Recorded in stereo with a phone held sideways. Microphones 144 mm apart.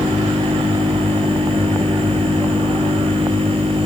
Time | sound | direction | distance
0.0 | a machine running | 40° right (ahead or behind) | ?